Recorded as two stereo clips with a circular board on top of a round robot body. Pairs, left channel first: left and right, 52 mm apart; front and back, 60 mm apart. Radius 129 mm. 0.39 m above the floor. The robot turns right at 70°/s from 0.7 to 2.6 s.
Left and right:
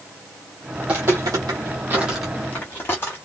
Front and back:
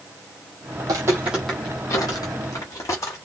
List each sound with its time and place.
0.8 s footsteps: 170° right, 0.7 m; by 3.2 s 40° left, 1.1 m